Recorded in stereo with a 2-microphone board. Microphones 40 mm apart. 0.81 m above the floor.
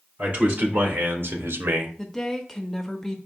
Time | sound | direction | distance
0.2 | a man speaking | 40° right (ahead or behind) | 2.5 m
2.0 | a woman speaking | 10° left (ahead or behind) | 0.8 m